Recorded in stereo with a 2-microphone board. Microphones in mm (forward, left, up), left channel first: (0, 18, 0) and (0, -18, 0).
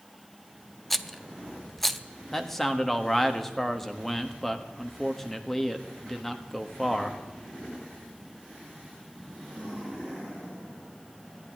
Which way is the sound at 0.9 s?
5° left (ahead or behind).